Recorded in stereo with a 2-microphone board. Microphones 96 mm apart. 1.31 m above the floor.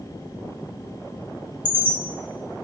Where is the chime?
60° right (ahead or behind), 2.5 m.